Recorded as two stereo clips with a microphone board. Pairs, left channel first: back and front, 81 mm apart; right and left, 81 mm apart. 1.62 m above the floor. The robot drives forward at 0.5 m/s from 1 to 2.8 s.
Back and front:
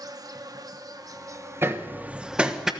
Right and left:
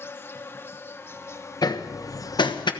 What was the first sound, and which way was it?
An insect, 35° right.